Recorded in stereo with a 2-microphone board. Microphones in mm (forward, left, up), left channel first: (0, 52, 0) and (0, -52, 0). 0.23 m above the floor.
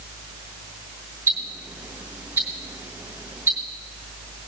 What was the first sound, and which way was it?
Ticking, 25° right (ahead or behind).